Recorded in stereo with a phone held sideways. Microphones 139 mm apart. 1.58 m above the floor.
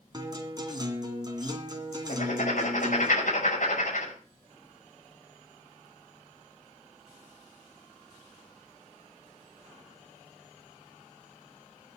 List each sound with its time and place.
0.1 s a guitar: 30° right (ahead or behind), 2.5 m
2.1 s writing: 65° left (ahead or behind), 5.5 m